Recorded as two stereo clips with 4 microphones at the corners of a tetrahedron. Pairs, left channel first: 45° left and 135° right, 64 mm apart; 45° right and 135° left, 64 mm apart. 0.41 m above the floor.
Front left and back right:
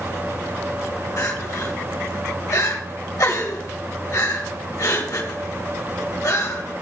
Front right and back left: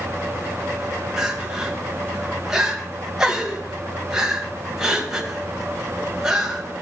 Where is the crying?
55° left, 2.5 m.